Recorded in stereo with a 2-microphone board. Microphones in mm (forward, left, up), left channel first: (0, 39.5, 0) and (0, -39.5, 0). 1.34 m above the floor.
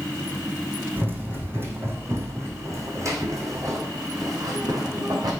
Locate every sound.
1.0 s running footsteps: 25° right (ahead or behind), 4 m; by 5.3 s 55° right (ahead or behind), 4.5 m